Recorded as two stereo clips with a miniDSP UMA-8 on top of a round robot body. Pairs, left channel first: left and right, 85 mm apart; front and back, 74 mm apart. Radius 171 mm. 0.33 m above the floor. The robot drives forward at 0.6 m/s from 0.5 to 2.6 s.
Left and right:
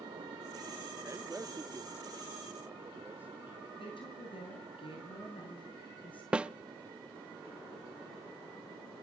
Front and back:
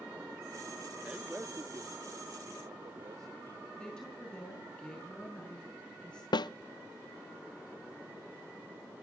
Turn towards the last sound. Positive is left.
turn(degrees=-15)